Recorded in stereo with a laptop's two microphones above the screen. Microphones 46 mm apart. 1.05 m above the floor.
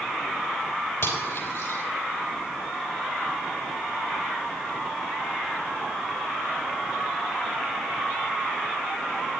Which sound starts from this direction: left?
Cutlery clinking, at 1.0 s.